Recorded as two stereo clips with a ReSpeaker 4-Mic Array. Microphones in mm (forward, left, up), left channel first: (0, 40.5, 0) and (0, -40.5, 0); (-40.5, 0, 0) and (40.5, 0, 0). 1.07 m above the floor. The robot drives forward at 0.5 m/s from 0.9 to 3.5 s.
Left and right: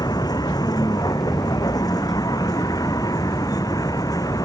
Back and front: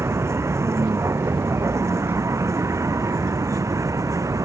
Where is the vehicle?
55° left; by 4.5 s 50° left.